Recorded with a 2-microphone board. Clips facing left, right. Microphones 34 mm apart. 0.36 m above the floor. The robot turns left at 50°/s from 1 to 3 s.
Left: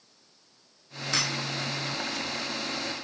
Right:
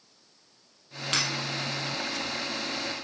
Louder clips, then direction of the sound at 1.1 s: Even; 60° right (ahead or behind).